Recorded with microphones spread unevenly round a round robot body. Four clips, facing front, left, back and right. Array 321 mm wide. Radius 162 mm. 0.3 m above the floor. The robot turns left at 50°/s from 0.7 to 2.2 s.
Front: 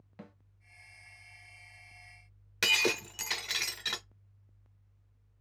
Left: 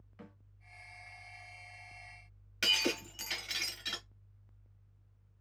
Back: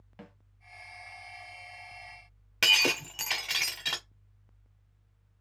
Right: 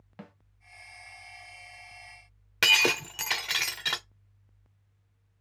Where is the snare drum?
100° right, 2.0 m.